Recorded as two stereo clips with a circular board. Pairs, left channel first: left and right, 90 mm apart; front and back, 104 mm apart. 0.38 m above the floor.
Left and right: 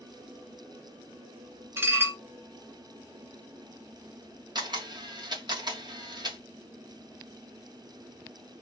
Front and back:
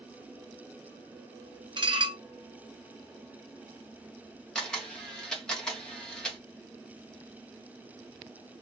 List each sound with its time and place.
1.8 s dishes clattering: 145° right, 0.8 m
4.5 s a camera shutter: 80° right, 1.3 m